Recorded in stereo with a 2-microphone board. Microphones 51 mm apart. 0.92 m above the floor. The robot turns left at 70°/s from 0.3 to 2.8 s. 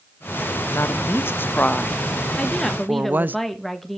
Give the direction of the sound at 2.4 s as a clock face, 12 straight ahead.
11 o'clock.